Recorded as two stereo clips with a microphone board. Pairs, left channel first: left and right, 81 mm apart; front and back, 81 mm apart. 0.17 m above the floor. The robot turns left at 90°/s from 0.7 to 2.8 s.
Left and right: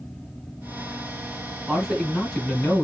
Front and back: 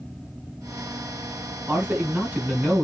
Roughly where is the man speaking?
Behind right.